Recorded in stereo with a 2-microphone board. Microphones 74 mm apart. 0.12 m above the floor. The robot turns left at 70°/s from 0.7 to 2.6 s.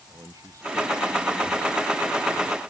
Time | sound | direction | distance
0.1 | a man speaking | 50° right | ?